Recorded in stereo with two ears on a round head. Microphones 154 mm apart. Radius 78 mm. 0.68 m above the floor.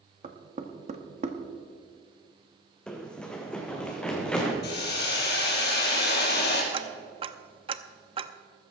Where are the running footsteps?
5° left (ahead or behind), 1.7 m.